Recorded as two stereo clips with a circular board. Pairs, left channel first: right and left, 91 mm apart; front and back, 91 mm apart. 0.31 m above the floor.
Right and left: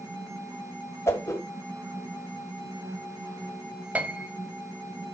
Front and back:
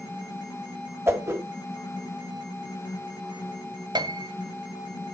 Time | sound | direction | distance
1.1 | a whoosh | 135° right | 1.6 m
4.0 | a piano | 160° left | 1.0 m